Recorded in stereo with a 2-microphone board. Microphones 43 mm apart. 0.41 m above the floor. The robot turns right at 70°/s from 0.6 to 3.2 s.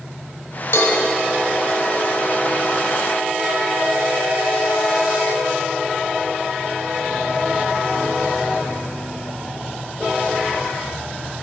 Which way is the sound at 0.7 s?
65° left (ahead or behind).